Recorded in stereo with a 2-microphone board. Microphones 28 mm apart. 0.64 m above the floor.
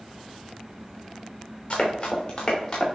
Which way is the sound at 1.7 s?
35° left (ahead or behind).